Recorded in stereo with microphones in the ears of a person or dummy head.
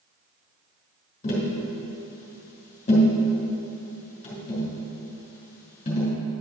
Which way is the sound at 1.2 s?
35° left (ahead or behind).